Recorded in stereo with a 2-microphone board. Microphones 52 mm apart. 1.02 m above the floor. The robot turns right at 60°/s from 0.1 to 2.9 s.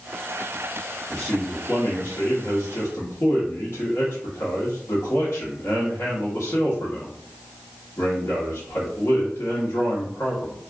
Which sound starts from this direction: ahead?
A man speaking, at 1.1 s.